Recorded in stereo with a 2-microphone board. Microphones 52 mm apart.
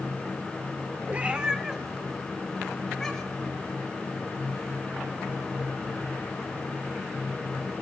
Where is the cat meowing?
30° right (ahead or behind), 1.0 m; by 3.5 s 10° left (ahead or behind), 3.5 m.